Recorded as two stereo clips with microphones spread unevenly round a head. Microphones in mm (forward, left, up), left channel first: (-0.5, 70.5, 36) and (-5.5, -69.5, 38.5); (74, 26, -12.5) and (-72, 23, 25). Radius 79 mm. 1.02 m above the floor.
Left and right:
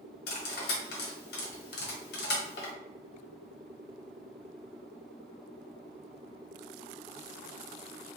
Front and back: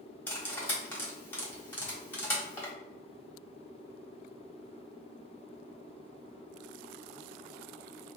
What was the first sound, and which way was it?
Cutlery clinking, 80° left.